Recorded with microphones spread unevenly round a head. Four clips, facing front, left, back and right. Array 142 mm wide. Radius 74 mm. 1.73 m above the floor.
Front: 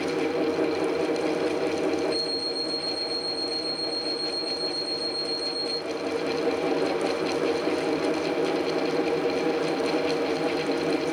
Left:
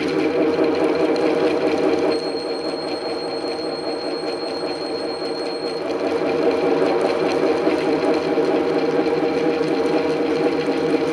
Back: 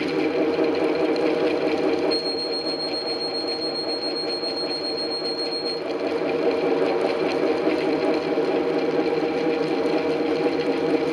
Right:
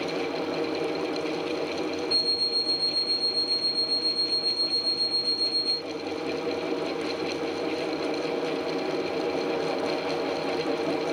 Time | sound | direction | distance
2.1 | an alarm clock | 125° right | 1.6 m